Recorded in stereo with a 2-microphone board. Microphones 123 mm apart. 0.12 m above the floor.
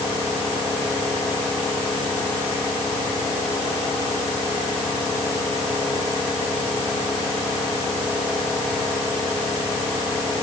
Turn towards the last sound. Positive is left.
No sound to turn to.